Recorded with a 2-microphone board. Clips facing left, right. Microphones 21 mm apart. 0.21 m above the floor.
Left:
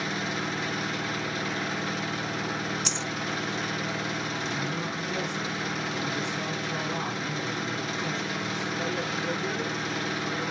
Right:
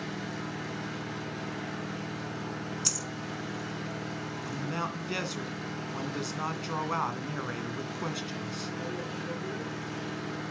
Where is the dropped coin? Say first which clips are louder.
Left 2 dB; 20° left (ahead or behind), 0.8 m.